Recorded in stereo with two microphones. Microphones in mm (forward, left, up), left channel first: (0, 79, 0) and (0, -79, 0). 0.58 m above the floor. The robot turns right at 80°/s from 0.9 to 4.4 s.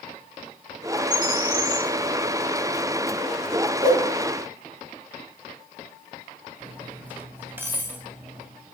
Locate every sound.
1.1 s a bird: 60° left, 3 m; by 1.9 s 125° left, 3 m
3.8 s a whoosh: 35° right (ahead or behind), 4.5 m; by 4.1 s 10° right (ahead or behind), 4.5 m
6.6 s cutlery clinking: 10° right (ahead or behind), 2 m